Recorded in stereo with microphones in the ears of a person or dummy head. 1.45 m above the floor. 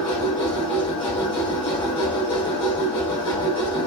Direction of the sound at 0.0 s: 25° left (ahead or behind).